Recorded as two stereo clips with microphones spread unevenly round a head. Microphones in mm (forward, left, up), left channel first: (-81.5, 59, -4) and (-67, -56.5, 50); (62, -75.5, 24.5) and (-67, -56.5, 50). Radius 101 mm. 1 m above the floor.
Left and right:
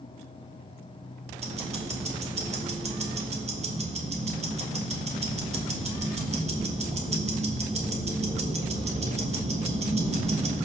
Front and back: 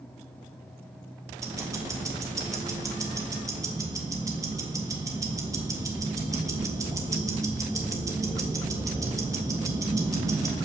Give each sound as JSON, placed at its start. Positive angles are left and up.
{"t": 1.4, "sound": "ticking", "azimuth_deg": -120, "distance_m": 1.5}